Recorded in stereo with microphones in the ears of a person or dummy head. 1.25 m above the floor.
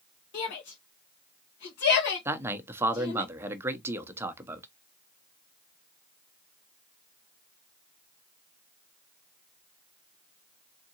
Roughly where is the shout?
Left.